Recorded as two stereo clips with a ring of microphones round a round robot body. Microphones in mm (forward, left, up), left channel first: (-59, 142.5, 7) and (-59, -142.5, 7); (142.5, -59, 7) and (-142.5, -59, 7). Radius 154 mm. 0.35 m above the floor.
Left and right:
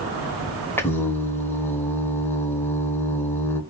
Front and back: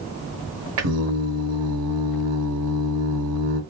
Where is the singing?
170° left, 1.0 m.